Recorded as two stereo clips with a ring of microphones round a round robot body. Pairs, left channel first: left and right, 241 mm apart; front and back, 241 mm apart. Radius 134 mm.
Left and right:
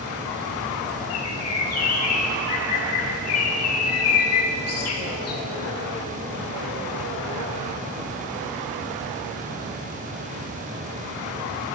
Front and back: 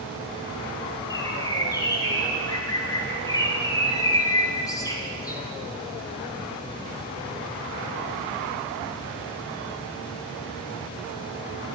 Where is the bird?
75° left, 1.7 m.